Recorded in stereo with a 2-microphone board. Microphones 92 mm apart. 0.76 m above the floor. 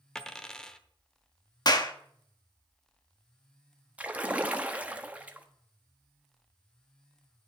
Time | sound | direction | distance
0.1 | a dropped coin | 10° left (ahead or behind) | 0.9 m
1.6 | a clap | 45° left (ahead or behind) | 1.0 m
4.0 | a splash | 15° right (ahead or behind) | 1.0 m